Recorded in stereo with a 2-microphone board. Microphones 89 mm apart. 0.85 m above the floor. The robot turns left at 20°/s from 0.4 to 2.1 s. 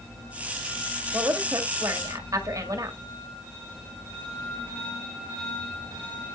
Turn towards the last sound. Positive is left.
turn(degrees=-40)  # may be behind; listen again after turning